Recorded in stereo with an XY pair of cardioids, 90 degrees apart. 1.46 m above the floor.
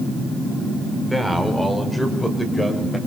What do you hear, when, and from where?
1.0 s a man speaking: 5° left, 4.5 m; by 3.0 s 10° left, 6 m